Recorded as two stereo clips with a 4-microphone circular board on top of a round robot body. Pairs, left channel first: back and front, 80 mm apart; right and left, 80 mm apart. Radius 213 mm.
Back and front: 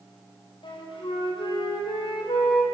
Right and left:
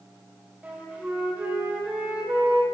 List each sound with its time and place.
0.6 s a flute: 160° left, 3.5 m